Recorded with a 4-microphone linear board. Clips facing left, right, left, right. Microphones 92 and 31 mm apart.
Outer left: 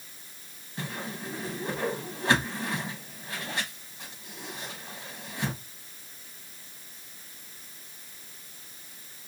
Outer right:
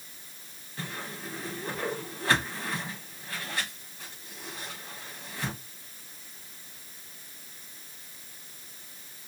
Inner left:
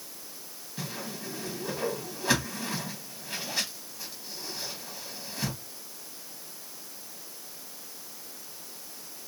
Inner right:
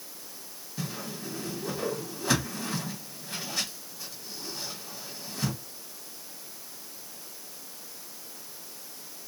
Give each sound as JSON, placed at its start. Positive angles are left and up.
{"t": 0.8, "sound": "a whoosh", "side_deg": 20, "distance_m": 2.0}